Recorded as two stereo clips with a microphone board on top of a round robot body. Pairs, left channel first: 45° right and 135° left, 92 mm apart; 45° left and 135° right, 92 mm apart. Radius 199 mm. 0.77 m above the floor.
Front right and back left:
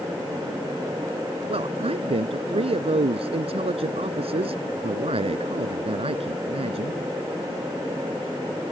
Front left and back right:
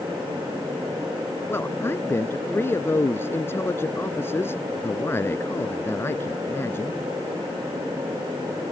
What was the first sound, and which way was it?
A man speaking, 115° left.